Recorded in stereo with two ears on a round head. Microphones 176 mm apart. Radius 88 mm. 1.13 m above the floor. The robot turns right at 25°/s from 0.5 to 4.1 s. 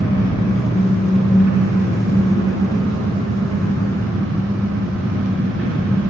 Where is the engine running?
160° right, 5.5 m; by 6.1 s 70° right, 5.5 m.